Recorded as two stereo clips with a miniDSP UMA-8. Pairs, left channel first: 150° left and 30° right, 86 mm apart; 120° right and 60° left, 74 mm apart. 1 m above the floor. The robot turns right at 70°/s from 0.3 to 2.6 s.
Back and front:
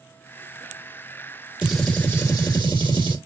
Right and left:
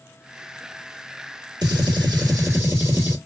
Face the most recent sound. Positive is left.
turn(degrees=115)